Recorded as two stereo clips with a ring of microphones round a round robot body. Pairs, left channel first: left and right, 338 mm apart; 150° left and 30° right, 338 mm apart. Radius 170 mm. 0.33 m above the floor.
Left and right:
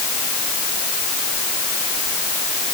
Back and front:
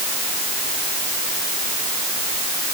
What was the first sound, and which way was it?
Only background noise.